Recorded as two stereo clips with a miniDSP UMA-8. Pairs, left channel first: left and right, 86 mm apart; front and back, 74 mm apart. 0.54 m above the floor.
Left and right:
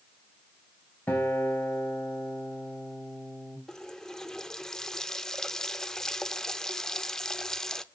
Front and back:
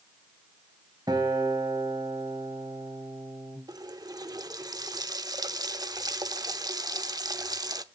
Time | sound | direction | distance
1.1 | a guitar | 160° left | 4 m
3.7 | a running tap | 175° left | 0.7 m